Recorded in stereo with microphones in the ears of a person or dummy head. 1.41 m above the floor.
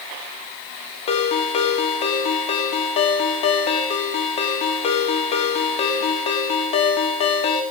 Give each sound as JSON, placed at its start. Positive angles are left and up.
{"t": 1.1, "sound": "a ringtone", "side_deg": 35, "distance_m": 1.2}